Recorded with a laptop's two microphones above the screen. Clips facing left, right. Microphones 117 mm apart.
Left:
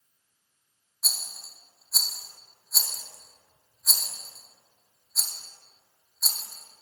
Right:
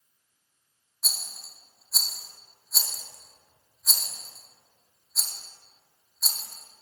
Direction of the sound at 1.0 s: Centre (ahead or behind).